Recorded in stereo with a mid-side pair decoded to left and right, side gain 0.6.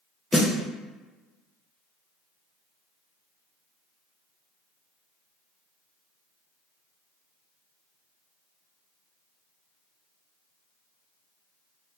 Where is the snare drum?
10° left, 0.7 m.